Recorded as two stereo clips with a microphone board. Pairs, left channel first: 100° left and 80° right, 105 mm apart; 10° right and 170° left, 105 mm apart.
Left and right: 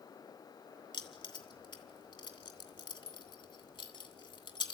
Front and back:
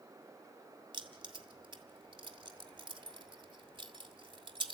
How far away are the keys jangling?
About 2 m.